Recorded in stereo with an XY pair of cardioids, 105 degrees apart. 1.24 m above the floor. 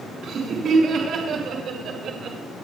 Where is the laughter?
65° right, 5 m; by 2.4 s 60° right, 2.5 m.